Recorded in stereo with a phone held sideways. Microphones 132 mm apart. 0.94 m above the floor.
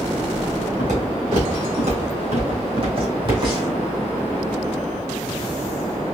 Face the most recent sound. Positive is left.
turn(degrees=-30)  # may be behind; listen again after turning